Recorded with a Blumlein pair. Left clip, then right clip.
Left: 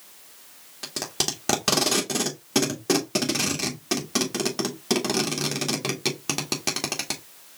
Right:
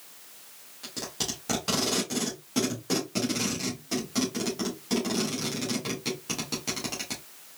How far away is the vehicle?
I don't hear a vehicle.